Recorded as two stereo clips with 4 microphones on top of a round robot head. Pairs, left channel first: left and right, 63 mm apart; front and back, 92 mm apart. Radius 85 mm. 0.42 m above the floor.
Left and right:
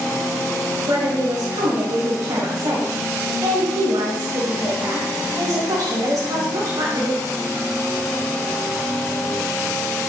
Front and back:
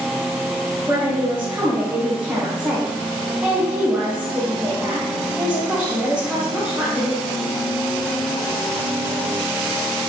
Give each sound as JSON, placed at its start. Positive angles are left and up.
{"t": 0.9, "sound": "a woman speaking", "azimuth_deg": -110, "distance_m": 2.0}